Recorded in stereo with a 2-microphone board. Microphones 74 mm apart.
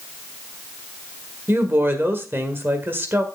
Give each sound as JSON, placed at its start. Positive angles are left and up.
{"t": 1.5, "sound": "a woman speaking", "side_deg": -30, "distance_m": 1.7}